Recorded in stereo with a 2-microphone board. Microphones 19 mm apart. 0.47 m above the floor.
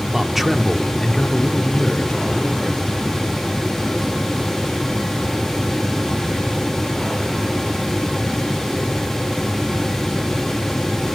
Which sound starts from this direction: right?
A man speaking, at 0.1 s.